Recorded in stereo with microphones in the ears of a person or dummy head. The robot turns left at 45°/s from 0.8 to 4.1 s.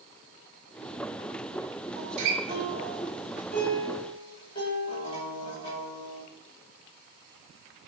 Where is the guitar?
115° right, 5.5 m; by 6.2 s 150° left, 5.5 m.